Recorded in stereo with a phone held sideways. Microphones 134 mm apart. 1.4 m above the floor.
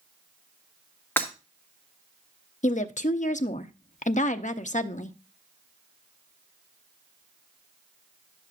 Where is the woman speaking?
65° left (ahead or behind), 0.6 m.